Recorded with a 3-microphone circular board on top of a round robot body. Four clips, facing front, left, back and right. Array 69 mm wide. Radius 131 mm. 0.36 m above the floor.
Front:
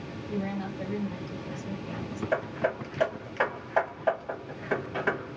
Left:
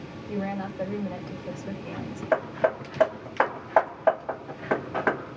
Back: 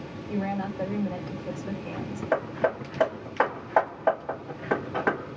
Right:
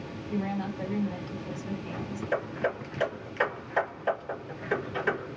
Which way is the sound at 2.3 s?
115° left.